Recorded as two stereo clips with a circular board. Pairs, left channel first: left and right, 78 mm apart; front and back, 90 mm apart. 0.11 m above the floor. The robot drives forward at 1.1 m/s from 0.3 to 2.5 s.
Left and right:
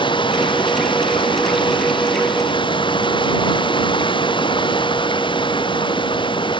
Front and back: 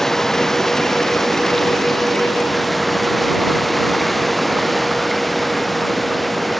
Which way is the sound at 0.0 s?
85° left.